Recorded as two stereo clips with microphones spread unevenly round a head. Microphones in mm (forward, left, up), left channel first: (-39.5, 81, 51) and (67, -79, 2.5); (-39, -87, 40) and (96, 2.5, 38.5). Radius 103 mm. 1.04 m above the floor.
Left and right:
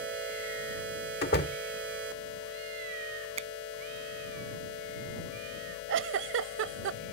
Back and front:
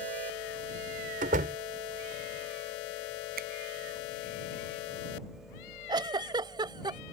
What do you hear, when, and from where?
1.2 s a door slam: 85° left
3.4 s a finger snap: 5° left
5.9 s a giggle: 30° right